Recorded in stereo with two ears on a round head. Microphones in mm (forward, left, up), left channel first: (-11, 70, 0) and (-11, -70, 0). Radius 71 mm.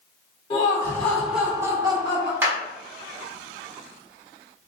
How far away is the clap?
About 1.8 m.